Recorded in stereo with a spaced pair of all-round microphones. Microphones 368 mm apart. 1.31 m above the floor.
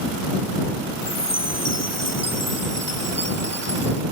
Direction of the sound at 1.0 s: 60° left (ahead or behind).